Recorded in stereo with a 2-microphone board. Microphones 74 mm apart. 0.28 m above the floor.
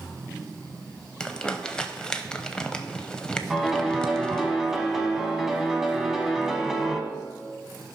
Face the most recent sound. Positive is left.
turn(degrees=-5)  # may be behind; listen again after turning